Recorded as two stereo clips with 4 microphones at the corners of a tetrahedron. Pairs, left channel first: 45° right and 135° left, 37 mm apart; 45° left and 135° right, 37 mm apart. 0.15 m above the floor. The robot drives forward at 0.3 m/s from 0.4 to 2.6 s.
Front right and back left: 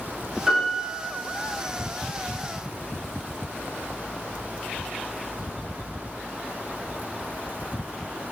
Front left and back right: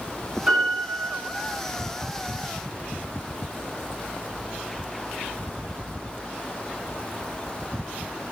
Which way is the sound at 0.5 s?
155° right.